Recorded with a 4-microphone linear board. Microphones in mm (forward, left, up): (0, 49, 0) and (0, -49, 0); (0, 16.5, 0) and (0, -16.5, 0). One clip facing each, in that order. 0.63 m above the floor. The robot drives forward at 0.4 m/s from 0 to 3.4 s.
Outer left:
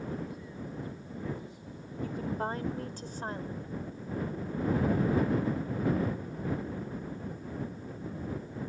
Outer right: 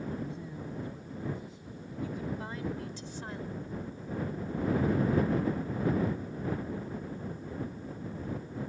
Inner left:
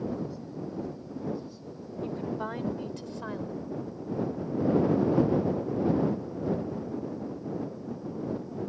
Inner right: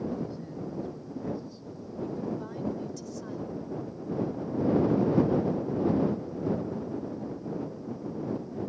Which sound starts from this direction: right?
A man speaking, at 0.2 s.